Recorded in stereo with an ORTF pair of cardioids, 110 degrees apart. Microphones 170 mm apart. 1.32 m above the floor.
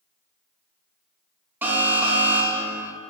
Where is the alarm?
10° right, 1.1 m.